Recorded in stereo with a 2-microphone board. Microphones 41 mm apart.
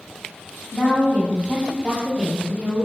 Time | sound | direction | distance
0.7 | a woman speaking | 35° left (ahead or behind) | 1.7 m